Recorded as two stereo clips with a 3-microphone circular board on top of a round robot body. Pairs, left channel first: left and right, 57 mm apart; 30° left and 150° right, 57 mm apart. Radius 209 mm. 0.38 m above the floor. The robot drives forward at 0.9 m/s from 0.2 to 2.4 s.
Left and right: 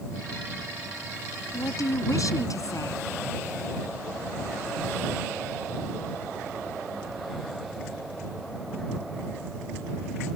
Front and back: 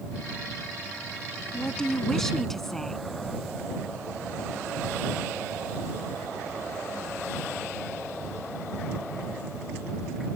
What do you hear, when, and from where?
1.5 s a woman speaking: 110° left; by 3.0 s 115° left